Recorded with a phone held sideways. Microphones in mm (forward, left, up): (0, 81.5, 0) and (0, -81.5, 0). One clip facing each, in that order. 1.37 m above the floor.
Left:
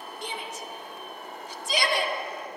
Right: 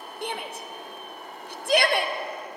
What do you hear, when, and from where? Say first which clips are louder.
0.2 s a shout: right 4 dB; 60° right (ahead or behind), 0.7 m